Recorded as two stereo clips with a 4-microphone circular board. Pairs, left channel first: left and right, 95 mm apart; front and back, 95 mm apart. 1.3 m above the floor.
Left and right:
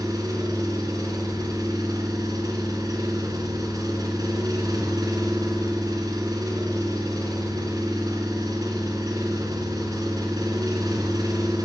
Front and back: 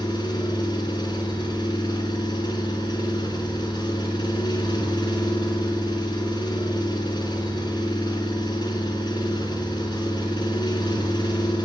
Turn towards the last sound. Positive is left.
turn(degrees=-40)